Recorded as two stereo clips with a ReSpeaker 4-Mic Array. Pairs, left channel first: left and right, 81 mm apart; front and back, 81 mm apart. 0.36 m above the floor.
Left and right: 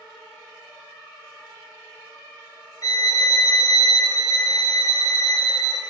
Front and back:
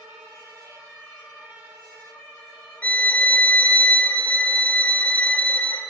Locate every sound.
2.8 s a violin: 70° left, 0.9 m